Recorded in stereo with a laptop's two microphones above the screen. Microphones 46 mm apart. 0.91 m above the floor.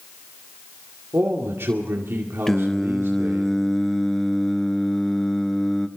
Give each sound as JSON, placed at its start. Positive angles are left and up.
{"t": 1.1, "sound": "a man speaking", "side_deg": -65, "distance_m": 2.5}
{"t": 2.5, "sound": "singing", "side_deg": 10, "distance_m": 0.8}